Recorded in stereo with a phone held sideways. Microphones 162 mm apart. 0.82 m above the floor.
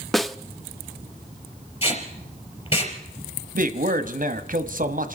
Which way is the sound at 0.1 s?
Centre (ahead or behind).